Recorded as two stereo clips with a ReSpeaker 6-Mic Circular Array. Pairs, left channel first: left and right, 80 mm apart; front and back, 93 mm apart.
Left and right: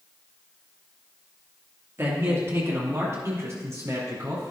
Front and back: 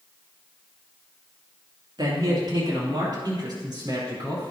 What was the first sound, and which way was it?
A man speaking, 145° right.